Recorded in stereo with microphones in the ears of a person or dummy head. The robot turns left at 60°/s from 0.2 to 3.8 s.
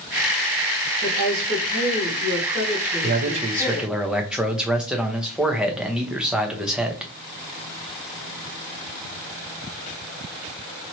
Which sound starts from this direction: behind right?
A man speaking, at 3.0 s.